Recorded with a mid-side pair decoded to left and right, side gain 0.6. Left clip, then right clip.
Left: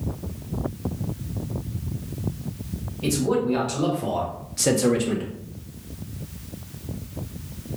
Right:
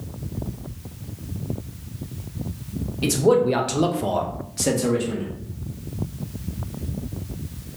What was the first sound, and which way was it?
A man speaking, 65° right.